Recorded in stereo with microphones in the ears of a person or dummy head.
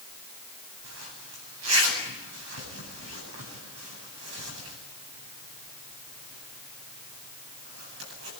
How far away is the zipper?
About 9.5 m.